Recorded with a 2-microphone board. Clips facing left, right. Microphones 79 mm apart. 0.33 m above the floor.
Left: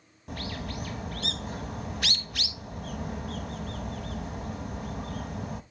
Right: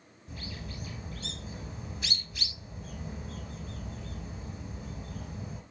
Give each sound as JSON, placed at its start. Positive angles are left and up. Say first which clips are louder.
{"t": 0.3, "sound": "a bird", "louder": "left 7 dB", "side_deg": 65, "distance_m": 1.0}